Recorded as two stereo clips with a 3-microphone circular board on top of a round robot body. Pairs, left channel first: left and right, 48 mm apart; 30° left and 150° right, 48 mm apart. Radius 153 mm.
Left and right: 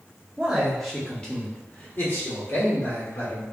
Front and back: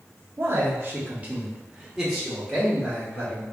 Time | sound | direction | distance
0.4 | a man speaking | 160° right | 1.0 m